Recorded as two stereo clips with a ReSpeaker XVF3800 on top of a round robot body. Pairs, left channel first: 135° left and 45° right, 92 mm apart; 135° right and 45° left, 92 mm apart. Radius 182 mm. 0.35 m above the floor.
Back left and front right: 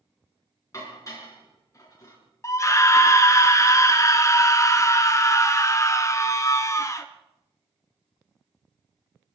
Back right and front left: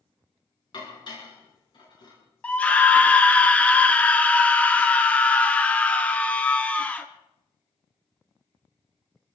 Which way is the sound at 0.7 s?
170° right.